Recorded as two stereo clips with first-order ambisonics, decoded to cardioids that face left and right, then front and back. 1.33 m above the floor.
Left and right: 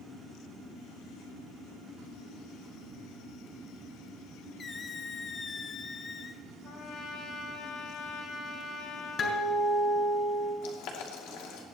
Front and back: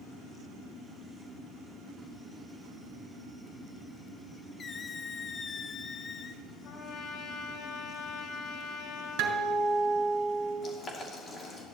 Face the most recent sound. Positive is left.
turn(degrees=65)